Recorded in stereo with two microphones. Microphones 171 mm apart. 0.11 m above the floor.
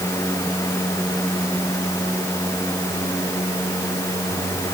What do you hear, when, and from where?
Only background noise.